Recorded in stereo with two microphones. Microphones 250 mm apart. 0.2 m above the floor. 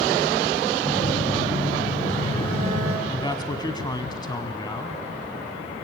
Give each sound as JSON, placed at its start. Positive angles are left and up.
{"t": 0.8, "sound": "a phone buzzing", "side_deg": 20, "distance_m": 7.5}
{"t": 3.1, "sound": "a man speaking", "side_deg": 15, "distance_m": 1.5}